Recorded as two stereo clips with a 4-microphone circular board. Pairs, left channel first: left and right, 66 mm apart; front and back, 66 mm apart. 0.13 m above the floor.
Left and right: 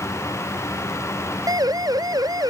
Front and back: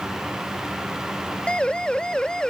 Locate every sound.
1.5 s a siren: 75° right; by 2.5 s 80° right